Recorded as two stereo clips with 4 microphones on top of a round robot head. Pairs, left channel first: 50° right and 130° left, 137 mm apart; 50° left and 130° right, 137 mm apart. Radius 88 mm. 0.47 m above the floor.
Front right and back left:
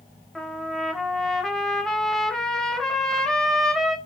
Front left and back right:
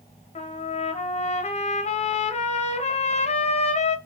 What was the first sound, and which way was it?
A trumpet, 40° left.